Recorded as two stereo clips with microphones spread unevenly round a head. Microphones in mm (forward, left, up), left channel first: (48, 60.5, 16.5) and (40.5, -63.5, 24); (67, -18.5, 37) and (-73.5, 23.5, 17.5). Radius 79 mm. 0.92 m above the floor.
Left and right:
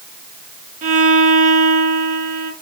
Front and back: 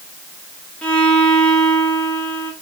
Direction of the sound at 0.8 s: 105° right.